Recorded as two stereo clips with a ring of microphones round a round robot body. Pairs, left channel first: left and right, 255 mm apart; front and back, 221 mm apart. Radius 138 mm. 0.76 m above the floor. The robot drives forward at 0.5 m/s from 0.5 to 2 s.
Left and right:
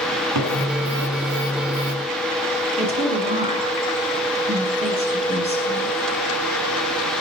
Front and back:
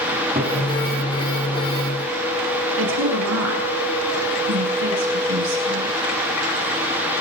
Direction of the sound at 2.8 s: 155° right.